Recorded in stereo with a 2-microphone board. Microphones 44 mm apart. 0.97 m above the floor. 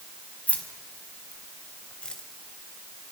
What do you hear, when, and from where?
0.5 s keys jangling: 40° left (ahead or behind), 4.5 m; by 2.2 s 20° left (ahead or behind), 3 m